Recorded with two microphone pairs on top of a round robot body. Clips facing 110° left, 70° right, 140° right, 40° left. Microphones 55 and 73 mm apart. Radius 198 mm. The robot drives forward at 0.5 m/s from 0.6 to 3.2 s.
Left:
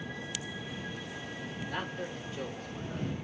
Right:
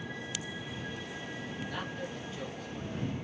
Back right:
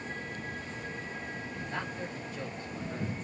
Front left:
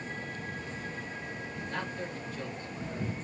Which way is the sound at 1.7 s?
150° left.